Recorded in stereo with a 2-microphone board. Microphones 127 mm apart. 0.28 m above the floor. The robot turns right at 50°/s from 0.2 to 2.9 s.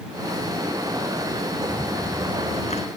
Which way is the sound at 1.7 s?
10° left.